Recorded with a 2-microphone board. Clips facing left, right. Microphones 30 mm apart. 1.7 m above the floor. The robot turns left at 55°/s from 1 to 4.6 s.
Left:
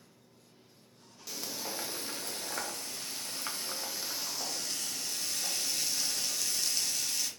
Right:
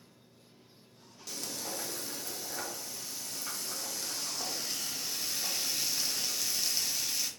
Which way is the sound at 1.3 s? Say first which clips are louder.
Even; 175° left.